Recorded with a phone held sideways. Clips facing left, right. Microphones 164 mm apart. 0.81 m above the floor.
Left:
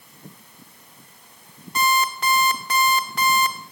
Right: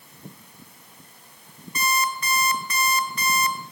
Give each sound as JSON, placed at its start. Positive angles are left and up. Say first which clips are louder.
{"t": 1.8, "sound": "an alarm clock", "louder": "left 4 dB", "side_deg": 80, "distance_m": 1.3}